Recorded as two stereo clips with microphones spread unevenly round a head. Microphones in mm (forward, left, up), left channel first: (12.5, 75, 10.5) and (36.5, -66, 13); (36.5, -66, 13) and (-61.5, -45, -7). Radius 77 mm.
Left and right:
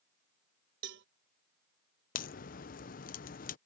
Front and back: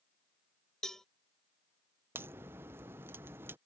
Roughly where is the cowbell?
Right.